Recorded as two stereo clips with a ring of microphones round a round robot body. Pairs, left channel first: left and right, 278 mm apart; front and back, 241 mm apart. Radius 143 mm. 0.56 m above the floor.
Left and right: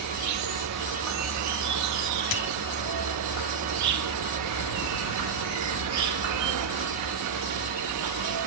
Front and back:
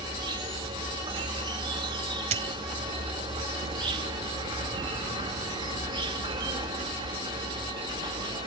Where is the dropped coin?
125° left, 0.7 m.